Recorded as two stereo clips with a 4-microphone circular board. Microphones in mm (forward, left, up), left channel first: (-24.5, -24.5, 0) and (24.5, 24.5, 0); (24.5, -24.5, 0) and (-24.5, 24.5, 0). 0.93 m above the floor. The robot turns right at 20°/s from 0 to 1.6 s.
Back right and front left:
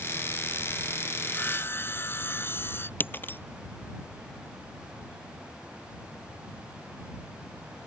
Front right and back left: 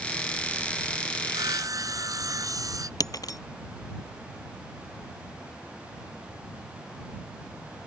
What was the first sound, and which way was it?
Sawing, 160° left.